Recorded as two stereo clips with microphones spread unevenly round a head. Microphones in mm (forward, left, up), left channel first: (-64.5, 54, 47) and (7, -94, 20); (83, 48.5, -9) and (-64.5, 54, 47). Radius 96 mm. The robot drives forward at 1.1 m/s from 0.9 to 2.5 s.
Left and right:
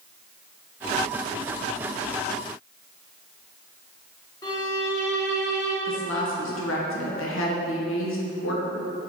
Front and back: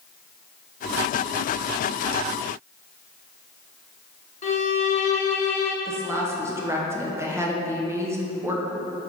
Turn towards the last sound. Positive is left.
turn(degrees=110)